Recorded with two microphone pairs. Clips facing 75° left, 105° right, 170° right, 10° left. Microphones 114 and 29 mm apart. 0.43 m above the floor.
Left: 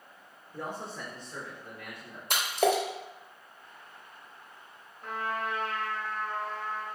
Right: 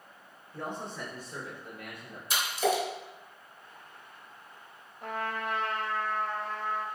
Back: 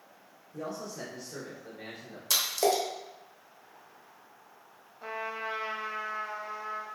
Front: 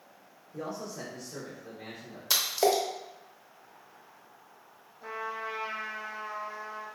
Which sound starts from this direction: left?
A splash, at 2.3 s.